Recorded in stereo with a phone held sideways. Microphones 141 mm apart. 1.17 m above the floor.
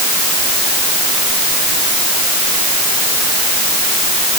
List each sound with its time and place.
Only background noise.